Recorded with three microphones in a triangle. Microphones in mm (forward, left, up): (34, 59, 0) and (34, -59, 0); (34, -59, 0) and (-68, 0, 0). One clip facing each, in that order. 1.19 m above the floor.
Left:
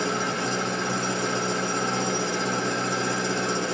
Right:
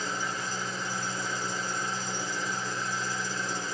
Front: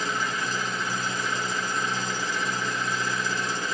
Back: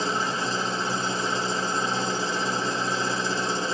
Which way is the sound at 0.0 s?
90° left.